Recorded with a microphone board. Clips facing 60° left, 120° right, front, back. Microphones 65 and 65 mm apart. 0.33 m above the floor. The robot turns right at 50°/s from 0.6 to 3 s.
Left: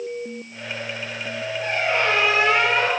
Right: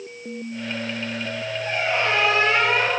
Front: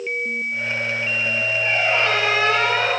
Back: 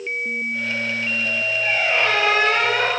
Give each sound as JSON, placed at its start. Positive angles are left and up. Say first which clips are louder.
{"t": 1.6, "sound": "a squeak", "louder": "left 1 dB, even", "azimuth_deg": 95, "distance_m": 2.0}